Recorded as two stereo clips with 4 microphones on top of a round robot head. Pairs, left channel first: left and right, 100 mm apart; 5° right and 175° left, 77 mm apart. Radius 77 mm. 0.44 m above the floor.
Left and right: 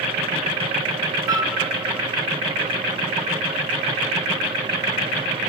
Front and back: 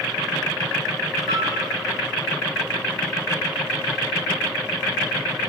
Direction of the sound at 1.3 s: 140° right.